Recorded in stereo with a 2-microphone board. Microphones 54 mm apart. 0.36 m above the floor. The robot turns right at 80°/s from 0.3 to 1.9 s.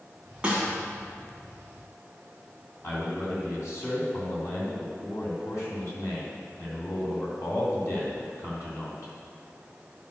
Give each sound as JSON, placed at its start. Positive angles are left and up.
{"t": 0.4, "sound": "a snare drum", "side_deg": -20, "distance_m": 2.5}
{"t": 2.8, "sound": "a man speaking", "side_deg": 55, "distance_m": 3.0}